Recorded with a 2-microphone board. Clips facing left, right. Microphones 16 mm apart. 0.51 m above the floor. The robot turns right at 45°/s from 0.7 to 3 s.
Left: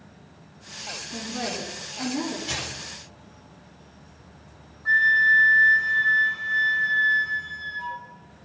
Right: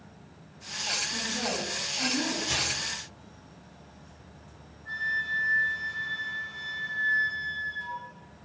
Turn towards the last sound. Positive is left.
turn(degrees=65)  # may be behind; listen again after turning